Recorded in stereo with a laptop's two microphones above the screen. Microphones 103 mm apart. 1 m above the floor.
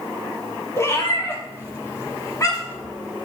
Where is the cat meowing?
30° left (ahead or behind), 4.5 m; by 2.8 s 40° left (ahead or behind), 6 m.